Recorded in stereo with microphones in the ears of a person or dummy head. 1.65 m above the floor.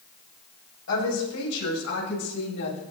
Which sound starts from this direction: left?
A woman speaking, at 0.9 s.